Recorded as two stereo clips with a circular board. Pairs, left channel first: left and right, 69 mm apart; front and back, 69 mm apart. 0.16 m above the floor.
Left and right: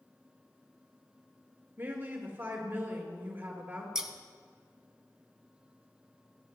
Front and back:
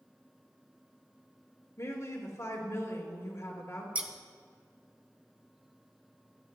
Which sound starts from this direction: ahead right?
A woman speaking, at 1.8 s.